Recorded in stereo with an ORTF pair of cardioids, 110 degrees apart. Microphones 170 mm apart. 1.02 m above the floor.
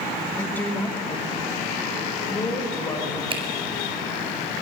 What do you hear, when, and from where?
0.4 s a woman speaking: 10° left, 2.5 m; by 3.2 s 20° left, 6 m
3.3 s a finger snap: 30° right, 5 m